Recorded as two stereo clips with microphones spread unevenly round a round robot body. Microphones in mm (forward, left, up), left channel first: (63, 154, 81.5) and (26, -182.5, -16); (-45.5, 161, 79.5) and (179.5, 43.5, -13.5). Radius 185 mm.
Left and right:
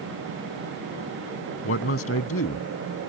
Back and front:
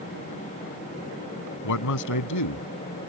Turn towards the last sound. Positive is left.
turn(degrees=145)